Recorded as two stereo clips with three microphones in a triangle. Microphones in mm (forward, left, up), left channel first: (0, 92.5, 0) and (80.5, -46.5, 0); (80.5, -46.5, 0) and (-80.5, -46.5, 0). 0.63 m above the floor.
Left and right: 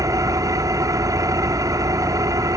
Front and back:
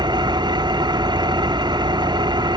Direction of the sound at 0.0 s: 120° right.